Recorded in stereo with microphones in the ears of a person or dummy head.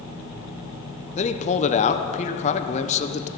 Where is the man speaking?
25° left (ahead or behind), 0.6 m.